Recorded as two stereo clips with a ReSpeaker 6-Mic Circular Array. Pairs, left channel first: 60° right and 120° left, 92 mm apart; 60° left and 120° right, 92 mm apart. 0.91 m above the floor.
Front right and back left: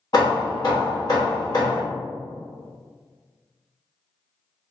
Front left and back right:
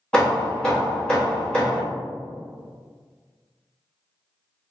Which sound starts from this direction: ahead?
Hammering, at 0.1 s.